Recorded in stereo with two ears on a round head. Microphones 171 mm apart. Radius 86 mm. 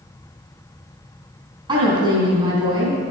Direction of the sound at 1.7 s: 25° right (ahead or behind).